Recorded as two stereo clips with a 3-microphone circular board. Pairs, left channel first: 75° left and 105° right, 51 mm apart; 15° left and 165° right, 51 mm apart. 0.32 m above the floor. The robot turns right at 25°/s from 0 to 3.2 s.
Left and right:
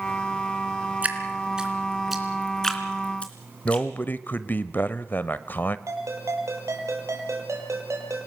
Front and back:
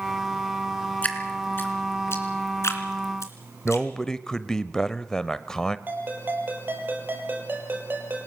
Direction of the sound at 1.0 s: 45° right.